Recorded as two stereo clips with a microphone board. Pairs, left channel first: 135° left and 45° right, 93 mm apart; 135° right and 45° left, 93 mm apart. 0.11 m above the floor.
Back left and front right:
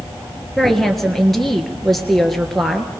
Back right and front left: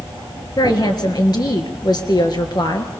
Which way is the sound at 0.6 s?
140° right.